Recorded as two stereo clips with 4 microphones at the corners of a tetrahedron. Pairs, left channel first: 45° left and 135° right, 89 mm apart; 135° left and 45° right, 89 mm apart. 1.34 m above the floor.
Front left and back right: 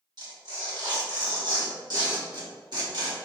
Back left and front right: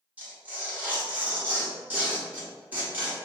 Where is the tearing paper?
115° right, 1.3 m.